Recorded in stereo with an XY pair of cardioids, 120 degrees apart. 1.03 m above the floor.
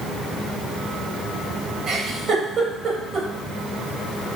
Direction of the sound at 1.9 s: 55° right.